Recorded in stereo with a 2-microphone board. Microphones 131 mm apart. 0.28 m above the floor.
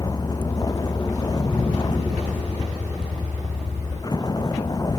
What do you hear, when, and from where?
0.0 s a vehicle: 30° left (ahead or behind)